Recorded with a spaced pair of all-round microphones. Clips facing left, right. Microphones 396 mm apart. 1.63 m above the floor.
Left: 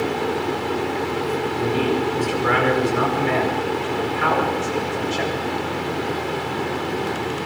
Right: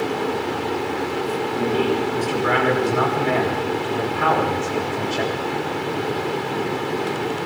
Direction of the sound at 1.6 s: 60° right (ahead or behind).